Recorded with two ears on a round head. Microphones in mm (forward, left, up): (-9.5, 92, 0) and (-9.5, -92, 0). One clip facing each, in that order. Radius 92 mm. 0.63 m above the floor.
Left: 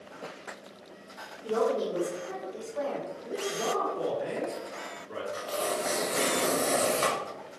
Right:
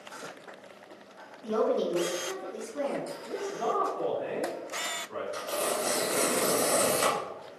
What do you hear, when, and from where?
1.4 s a woman speaking: 25° right (ahead or behind), 1.8 m; by 3.1 s 50° right (ahead or behind), 1.6 m
3.2 s a man speaking: 35° left (ahead or behind), 1.8 m
5.3 s tearing paper: 25° right (ahead or behind), 1.3 m